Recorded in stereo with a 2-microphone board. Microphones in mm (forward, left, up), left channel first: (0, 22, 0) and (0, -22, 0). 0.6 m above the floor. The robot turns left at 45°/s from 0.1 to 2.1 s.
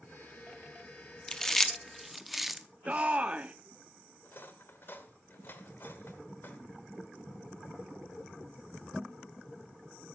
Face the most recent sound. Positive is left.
turn(degrees=50)  # may be behind; listen again after turning